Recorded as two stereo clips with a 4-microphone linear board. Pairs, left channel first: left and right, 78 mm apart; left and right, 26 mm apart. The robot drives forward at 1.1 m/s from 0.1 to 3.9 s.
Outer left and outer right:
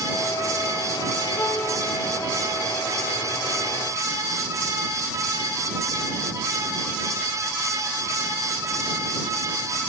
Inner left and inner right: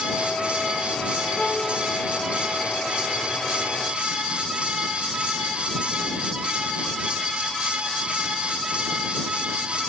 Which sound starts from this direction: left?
A violin, at 1.4 s.